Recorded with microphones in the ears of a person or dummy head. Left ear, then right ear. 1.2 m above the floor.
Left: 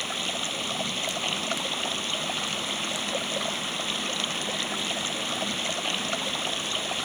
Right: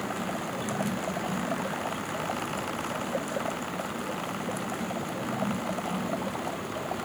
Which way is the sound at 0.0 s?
70° left (ahead or behind).